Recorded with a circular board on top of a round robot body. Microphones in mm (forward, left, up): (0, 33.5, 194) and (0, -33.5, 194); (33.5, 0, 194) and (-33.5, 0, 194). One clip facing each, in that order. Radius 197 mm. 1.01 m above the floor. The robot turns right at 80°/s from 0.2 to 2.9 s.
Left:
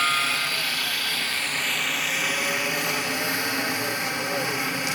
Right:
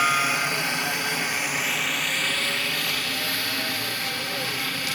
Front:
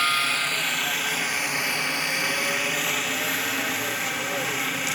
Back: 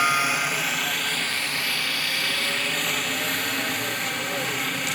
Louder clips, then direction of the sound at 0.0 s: Right 2 dB, back 2 dB; 140° right.